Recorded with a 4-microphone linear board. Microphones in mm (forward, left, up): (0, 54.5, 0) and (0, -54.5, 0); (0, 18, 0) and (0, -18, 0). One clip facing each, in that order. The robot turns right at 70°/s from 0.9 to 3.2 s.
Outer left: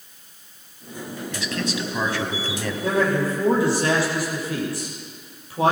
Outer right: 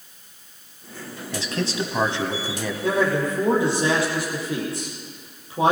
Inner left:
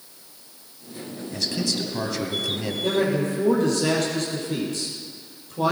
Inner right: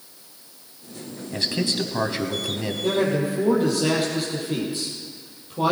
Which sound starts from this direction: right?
A man speaking, at 1.3 s.